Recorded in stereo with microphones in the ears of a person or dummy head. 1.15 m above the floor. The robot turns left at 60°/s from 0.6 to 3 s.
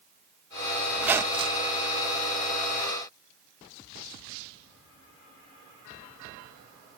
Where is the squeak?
Straight ahead; by 1.7 s 50° right.